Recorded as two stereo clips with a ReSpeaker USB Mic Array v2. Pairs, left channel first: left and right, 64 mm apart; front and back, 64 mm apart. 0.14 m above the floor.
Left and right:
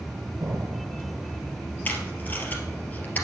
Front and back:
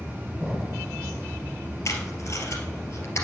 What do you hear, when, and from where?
0.4 s an explosion: 95° right, 1.8 m
1.9 s tape being pulled: 30° left, 2.5 m